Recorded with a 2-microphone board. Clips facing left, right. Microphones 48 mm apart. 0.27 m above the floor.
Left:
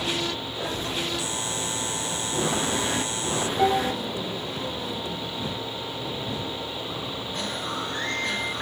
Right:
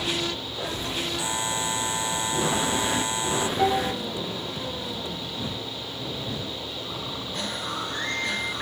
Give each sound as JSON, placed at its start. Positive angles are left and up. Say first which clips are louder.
{"t": 1.2, "sound": "a buzzer", "louder": "right 2 dB", "side_deg": -25}
{"t": 3.6, "sound": "dishes clattering", "louder": "left 2 dB", "side_deg": 5}